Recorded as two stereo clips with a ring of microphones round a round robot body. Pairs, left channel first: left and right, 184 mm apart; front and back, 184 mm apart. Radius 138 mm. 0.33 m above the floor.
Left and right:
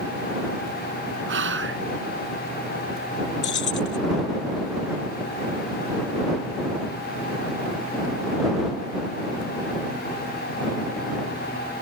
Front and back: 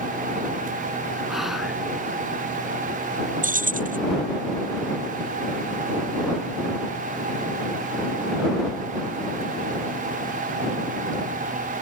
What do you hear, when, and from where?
1.3 s whispering: 90° right
3.4 s keys jangling: 135° left